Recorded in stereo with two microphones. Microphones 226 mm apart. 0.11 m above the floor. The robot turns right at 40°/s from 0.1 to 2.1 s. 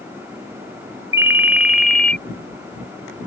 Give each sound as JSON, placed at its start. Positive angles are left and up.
{"t": 1.1, "sound": "a ringtone", "side_deg": -10}